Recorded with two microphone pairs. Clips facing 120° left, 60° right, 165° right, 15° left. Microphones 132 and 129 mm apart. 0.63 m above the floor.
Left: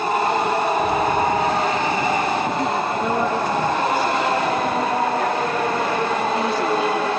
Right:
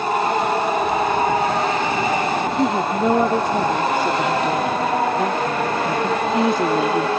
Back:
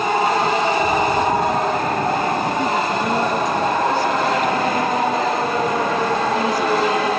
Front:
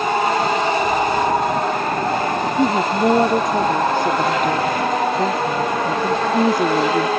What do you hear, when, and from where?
0.8 s an explosion: 105° left
2.4 s a woman speaking: straight ahead